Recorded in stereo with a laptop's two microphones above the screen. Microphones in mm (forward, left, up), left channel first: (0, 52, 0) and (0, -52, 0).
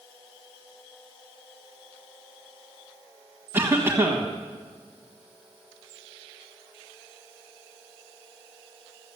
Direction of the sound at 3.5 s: 20° right (ahead or behind).